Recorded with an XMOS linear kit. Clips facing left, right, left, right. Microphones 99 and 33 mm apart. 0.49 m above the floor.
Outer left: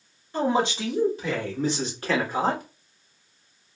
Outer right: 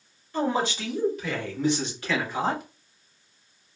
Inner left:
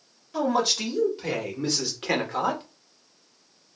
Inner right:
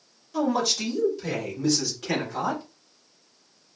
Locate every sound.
0.3 s a man speaking: 25° left (ahead or behind), 1.7 m; by 2.6 s 45° left (ahead or behind), 1.0 m